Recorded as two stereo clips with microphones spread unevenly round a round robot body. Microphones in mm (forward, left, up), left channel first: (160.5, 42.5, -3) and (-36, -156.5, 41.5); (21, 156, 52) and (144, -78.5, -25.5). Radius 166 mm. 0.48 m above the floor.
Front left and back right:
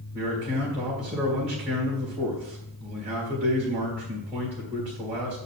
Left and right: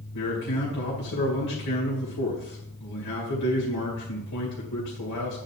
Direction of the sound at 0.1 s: 150° left.